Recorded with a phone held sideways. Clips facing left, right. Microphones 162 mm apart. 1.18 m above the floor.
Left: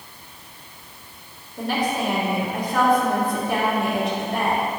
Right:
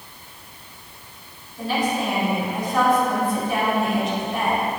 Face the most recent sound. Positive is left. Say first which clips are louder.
# even
turn(degrees=60)  # may be behind; listen again after turning